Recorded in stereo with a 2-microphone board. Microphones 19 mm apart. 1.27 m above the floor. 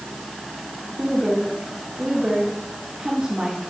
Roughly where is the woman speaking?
Right.